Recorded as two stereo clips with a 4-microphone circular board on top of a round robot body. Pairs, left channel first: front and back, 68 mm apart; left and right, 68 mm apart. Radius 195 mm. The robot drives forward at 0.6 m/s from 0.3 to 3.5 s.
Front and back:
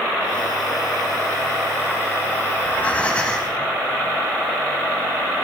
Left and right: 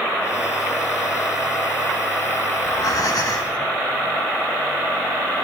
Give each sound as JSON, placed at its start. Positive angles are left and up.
{"t": 2.6, "sound": "breathing", "azimuth_deg": 60, "distance_m": 2.0}